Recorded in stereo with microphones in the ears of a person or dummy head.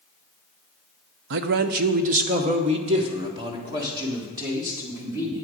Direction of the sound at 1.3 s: 55° right (ahead or behind).